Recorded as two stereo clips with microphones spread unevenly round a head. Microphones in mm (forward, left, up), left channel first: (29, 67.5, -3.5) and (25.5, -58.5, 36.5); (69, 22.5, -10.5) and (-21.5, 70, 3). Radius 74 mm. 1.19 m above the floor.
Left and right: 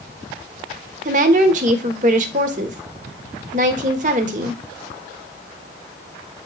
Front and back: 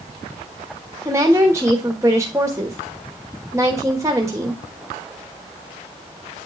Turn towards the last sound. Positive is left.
turn(degrees=-135)